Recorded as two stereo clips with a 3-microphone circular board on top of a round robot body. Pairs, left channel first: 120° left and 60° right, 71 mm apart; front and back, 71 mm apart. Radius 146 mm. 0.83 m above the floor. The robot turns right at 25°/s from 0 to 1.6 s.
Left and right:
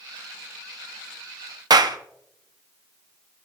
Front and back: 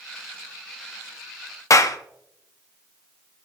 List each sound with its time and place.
1.7 s a clap: 40° right, 1.0 m